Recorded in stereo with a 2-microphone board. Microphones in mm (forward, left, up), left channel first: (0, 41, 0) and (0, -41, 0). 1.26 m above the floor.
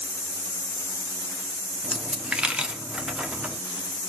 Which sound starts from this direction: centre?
A dropped coin, at 1.8 s.